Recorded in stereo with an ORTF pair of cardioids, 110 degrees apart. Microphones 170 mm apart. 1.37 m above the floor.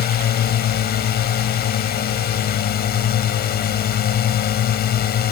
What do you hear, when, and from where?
0.0 s a drone: 60° left